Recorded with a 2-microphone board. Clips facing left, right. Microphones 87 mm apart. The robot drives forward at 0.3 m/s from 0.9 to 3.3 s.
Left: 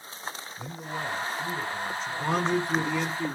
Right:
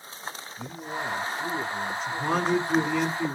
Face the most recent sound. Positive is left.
turn(degrees=0)  # may be behind; listen again after turning